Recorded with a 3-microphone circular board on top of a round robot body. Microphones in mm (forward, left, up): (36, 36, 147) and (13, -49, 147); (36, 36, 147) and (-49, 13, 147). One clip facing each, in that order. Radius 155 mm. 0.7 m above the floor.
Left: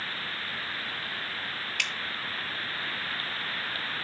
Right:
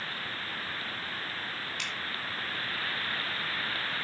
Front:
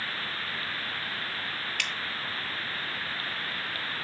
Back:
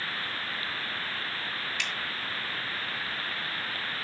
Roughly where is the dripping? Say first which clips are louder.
Left 3 dB, front 1 dB; ahead left.